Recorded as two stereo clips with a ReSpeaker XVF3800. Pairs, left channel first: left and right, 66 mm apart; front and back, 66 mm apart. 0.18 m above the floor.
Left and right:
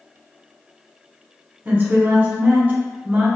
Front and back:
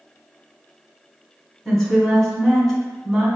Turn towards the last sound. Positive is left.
turn(degrees=-85)